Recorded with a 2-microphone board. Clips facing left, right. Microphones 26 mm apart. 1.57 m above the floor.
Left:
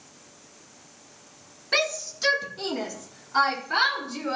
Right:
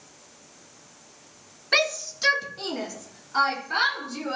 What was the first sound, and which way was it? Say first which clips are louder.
A shout: right 2 dB; 15° right (ahead or behind).